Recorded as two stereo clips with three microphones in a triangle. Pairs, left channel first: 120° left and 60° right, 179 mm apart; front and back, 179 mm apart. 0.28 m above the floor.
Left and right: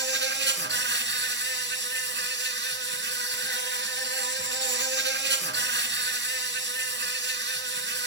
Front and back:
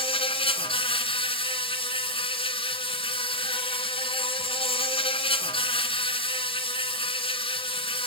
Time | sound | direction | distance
0.0 | an insect | 60° right | 1.7 m